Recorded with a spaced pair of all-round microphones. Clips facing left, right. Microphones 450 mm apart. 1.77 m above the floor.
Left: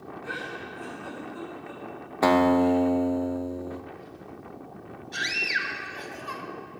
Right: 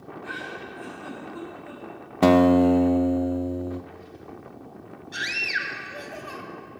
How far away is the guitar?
About 0.6 m.